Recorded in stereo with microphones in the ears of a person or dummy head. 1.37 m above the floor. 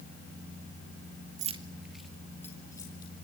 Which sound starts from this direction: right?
Keys jangling, at 1.4 s.